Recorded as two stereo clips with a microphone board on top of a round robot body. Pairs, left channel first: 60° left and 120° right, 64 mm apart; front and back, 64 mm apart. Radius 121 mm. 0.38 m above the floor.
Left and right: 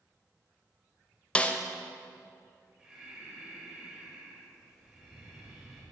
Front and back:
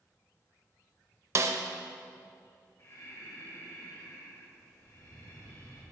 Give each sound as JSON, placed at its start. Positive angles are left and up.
{"t": 1.4, "sound": "a snare drum", "azimuth_deg": 130, "distance_m": 0.5}
{"t": 2.8, "sound": "breathing", "azimuth_deg": -45, "distance_m": 3.0}